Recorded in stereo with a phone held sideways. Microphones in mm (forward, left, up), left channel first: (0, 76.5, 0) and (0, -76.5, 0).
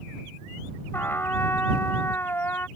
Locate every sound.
0.9 s a trumpet: 15° left (ahead or behind)